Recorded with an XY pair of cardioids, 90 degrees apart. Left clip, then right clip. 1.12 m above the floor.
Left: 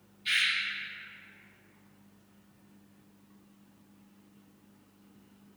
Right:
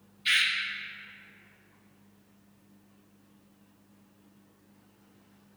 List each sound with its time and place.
0.2 s a bird: 60° right, 1.1 m